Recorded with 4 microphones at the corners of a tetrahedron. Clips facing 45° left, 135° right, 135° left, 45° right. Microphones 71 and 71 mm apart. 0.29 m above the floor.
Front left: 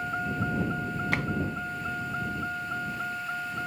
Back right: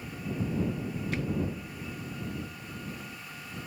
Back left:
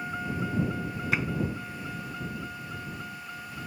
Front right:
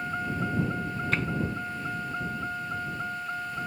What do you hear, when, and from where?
0.0 s a vehicle: 35° left; by 3.7 s 15° left
1.1 s tapping: 55° left